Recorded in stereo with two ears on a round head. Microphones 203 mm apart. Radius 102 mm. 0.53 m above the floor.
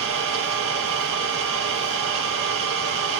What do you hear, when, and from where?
0.0 s an engine running: 65° right (ahead or behind), 4 m